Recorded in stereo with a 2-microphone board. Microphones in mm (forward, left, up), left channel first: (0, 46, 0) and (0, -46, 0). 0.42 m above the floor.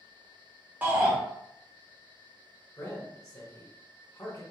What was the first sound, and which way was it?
A shout, 20° right (ahead or behind).